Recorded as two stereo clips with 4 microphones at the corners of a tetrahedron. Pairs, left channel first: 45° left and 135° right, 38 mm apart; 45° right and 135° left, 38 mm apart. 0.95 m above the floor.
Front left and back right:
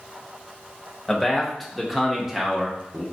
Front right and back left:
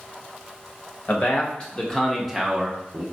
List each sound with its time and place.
1.1 s a man speaking: 35° right, 1.0 m; by 3.0 s 165° left, 0.9 m